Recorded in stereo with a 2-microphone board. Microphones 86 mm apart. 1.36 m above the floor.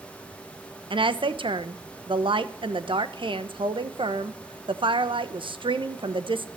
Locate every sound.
0.9 s a woman speaking: 75° right (ahead or behind), 1.0 m